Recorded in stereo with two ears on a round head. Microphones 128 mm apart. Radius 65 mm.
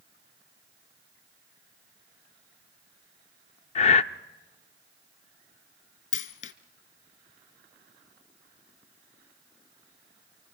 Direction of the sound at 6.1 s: 60° left (ahead or behind).